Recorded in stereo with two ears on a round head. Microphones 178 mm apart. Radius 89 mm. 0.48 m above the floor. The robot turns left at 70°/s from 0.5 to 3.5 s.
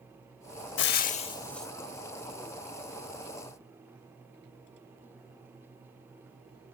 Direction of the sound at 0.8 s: 60° left.